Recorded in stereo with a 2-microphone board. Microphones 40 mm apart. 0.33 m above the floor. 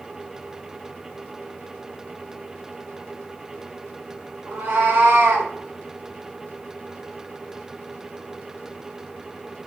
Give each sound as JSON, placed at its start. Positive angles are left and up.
{"t": 4.5, "sound": "a cat meowing", "side_deg": -80, "distance_m": 1.2}